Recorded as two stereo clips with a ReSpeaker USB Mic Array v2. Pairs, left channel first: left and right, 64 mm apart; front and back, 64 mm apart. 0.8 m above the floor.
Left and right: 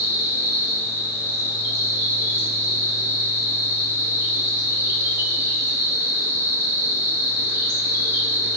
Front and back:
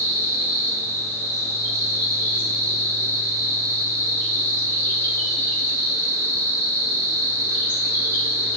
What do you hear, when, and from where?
0.0 s an insect: 45° right, 1.8 m